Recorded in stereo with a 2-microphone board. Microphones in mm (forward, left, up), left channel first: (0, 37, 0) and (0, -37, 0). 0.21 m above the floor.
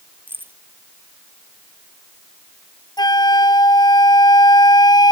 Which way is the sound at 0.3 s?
25° right (ahead or behind).